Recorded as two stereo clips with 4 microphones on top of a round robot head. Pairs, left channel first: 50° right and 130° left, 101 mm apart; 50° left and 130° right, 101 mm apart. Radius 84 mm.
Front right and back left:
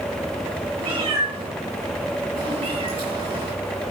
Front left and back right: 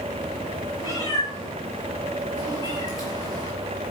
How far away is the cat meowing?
About 6 m.